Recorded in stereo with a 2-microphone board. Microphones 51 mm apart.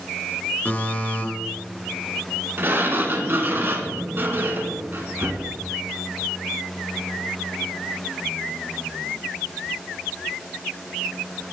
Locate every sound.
0.7 s a buzzer: 35° left (ahead or behind), 4 m
2.6 s a sliding door: 45° right (ahead or behind), 2.5 m